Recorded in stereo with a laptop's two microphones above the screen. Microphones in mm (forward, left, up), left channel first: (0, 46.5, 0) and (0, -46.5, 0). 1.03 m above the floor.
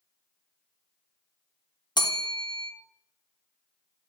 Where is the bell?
50° left (ahead or behind), 0.8 m.